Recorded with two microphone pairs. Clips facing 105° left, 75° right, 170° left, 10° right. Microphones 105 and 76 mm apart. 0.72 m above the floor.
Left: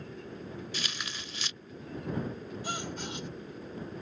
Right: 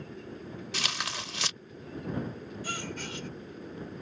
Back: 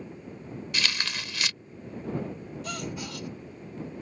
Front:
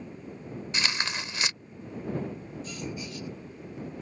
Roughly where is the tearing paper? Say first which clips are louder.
Right 4 dB, front 1 dB; right.